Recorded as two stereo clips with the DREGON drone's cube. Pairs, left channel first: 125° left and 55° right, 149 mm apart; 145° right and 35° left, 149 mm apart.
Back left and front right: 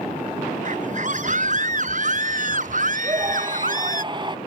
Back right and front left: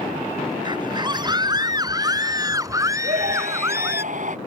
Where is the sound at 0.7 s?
25° right; by 4.0 s 40° right.